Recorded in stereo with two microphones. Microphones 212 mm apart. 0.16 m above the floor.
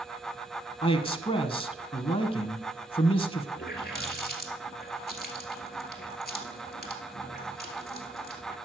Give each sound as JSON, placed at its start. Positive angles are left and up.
{"t": 0.8, "sound": "a man speaking", "side_deg": 25, "distance_m": 1.2}
{"t": 3.6, "sound": "a running tap", "side_deg": 50, "distance_m": 2.0}